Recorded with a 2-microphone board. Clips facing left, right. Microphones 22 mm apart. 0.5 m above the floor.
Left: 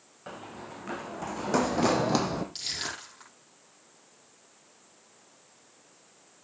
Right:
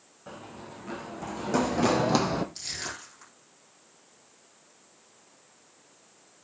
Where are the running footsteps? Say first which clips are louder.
Left 1 dB; 35° left (ahead or behind), 2.5 m; by 2.5 s 25° right (ahead or behind), 1.0 m.